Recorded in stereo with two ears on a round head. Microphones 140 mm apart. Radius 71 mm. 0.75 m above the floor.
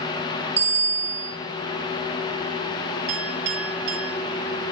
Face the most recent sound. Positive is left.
turn(degrees=-90)